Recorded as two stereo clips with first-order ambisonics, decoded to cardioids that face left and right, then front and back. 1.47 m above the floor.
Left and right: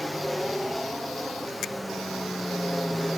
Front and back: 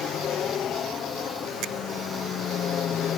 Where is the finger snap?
140° left.